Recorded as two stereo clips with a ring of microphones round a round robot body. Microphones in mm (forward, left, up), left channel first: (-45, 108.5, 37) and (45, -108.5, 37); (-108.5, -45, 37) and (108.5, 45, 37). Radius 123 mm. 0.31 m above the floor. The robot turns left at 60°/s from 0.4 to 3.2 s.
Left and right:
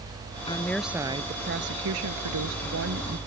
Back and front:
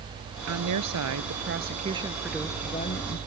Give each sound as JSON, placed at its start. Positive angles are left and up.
{"t": 0.5, "sound": "a woman speaking", "azimuth_deg": 40}